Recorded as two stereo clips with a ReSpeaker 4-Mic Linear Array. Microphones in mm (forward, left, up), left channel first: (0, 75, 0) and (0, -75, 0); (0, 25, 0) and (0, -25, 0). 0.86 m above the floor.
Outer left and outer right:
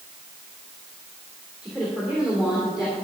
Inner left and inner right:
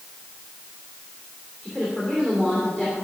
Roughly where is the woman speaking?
Centre.